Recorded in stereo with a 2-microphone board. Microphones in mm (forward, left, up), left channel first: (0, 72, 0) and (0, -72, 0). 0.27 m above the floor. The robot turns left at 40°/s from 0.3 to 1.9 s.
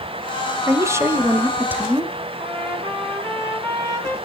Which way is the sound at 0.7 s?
20° right (ahead or behind).